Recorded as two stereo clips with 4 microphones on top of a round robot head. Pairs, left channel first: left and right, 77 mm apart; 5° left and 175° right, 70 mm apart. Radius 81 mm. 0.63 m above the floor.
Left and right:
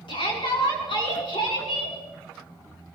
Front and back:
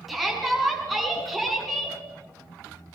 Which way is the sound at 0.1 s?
95° left.